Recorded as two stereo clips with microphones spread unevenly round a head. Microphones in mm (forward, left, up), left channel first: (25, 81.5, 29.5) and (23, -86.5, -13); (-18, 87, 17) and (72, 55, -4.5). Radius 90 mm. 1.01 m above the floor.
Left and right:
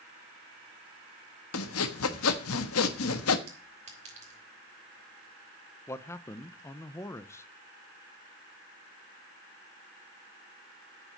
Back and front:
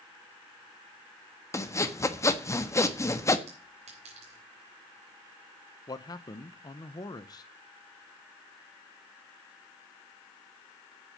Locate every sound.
1.5 s sawing: 100° left, 1.3 m
3.5 s a clink: 40° right, 4 m
5.9 s a man speaking: 175° left, 0.7 m